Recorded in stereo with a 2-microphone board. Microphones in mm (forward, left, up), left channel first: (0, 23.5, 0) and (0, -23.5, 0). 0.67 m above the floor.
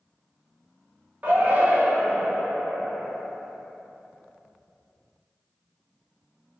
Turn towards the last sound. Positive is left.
turn(degrees=-35)  # may be behind; listen again after turning